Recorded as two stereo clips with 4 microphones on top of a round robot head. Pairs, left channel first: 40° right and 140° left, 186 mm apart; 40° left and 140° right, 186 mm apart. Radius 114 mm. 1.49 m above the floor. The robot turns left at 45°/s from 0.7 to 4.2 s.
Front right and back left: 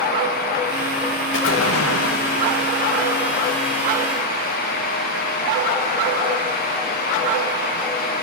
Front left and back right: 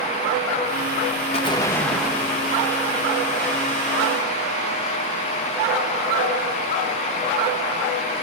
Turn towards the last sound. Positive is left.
turn(degrees=-145)